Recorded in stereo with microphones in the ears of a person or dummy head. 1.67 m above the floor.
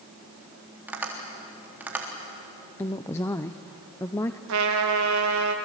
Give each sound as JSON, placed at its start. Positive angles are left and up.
{"t": 0.9, "sound": "tapping", "side_deg": -10, "distance_m": 3.5}
{"t": 2.8, "sound": "a woman speaking", "side_deg": 15, "distance_m": 0.7}
{"t": 4.5, "sound": "a trumpet", "side_deg": -65, "distance_m": 2.0}